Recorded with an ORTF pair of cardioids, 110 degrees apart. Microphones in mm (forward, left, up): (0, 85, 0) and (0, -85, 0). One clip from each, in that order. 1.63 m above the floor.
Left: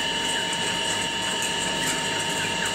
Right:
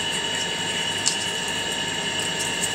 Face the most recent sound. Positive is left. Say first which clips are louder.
# even
turn(degrees=-10)